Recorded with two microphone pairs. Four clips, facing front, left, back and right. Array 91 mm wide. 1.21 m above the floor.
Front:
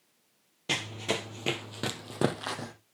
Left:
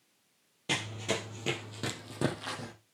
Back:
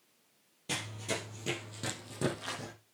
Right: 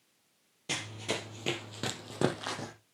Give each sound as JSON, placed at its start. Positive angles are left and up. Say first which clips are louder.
{"t": 0.7, "sound": "running footsteps", "louder": "left 3 dB, front 5 dB", "azimuth_deg": 20, "distance_m": 1.5}